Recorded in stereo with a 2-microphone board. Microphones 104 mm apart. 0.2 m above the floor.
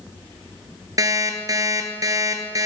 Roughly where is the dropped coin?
I don't hear a dropped coin.